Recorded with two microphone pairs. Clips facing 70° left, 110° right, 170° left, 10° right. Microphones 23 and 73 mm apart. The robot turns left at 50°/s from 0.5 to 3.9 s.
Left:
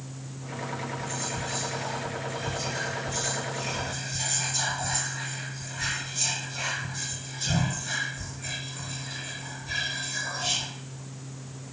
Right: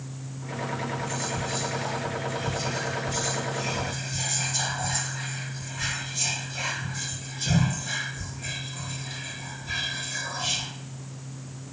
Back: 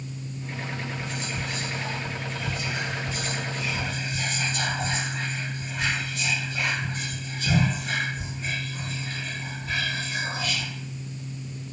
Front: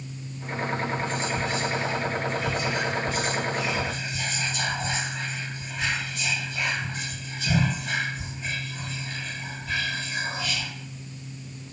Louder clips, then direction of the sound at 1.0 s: Right 2 dB, front 5 dB; 25° right.